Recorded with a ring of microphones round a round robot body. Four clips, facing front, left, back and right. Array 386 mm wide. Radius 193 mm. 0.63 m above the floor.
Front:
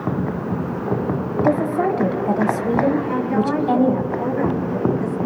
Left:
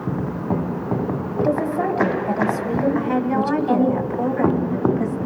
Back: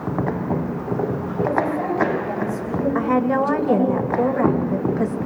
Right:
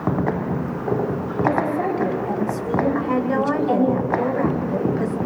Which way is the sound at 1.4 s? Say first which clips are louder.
Even, front 3 dB; 15° left.